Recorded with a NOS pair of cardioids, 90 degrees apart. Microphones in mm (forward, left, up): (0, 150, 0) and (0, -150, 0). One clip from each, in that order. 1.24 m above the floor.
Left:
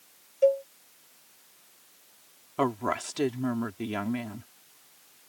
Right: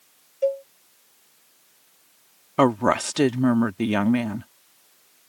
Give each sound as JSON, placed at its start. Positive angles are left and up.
{"t": 0.4, "sound": "a cowbell", "azimuth_deg": 5}
{"t": 2.6, "sound": "a woman speaking", "azimuth_deg": -65}